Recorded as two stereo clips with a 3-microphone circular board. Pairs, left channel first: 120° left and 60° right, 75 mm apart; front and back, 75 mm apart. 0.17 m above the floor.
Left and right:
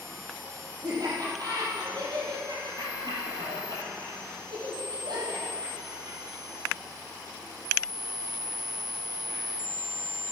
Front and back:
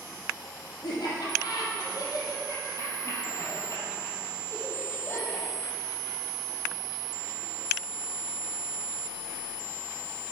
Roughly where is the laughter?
Ahead right.